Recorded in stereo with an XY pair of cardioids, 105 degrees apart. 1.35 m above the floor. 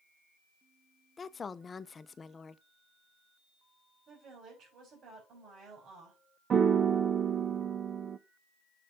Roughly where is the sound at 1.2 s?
Ahead left.